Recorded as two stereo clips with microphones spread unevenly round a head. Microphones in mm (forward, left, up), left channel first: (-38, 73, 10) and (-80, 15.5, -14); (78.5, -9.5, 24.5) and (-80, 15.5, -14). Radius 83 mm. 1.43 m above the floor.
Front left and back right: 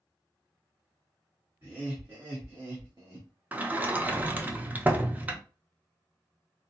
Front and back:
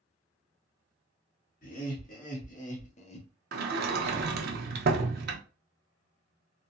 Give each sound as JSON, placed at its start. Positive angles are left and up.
{"t": 1.6, "sound": "laughter", "azimuth_deg": -50, "distance_m": 1.7}
{"t": 3.5, "sound": "a sliding door", "azimuth_deg": 155, "distance_m": 0.6}